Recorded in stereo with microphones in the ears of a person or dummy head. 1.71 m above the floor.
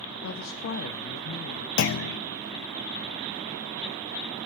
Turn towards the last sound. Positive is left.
turn(degrees=60)  # may be behind; listen again after turning